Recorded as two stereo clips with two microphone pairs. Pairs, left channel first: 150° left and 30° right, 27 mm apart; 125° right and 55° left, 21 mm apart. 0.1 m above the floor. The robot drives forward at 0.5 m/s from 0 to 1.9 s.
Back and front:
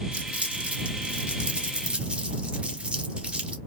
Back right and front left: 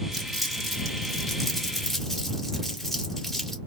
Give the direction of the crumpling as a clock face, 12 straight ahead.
1 o'clock.